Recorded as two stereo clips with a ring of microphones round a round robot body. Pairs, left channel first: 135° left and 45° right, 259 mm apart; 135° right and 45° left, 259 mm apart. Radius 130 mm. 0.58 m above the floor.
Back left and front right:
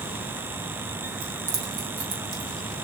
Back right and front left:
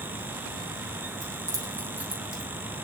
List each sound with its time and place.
1.2 s keys jangling: 35° right, 3.5 m; by 2.5 s 45° right, 3 m